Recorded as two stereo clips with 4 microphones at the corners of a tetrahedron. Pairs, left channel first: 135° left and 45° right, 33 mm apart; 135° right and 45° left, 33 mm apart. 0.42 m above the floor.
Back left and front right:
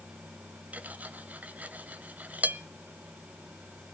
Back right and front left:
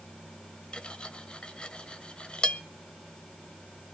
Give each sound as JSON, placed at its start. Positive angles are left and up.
{"t": 0.7, "sound": "cutlery clinking", "azimuth_deg": -80, "distance_m": 1.1}